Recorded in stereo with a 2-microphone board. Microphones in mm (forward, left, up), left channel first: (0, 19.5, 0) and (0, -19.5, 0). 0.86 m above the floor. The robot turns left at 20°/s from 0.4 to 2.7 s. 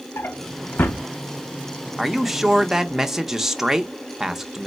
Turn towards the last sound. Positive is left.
turn(degrees=-10)  # may be behind; listen again after turning